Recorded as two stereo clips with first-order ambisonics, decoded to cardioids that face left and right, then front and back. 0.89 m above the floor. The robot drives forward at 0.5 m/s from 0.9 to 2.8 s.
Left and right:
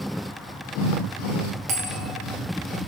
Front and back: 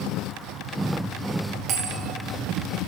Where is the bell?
130° right, 1.4 m; by 2.1 s 140° right, 1.5 m.